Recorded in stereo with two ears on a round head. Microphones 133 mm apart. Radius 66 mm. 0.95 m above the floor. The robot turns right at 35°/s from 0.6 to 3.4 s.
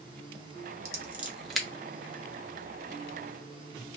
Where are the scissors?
20° right (ahead or behind), 0.7 m; by 1.7 s 5° left (ahead or behind), 0.7 m.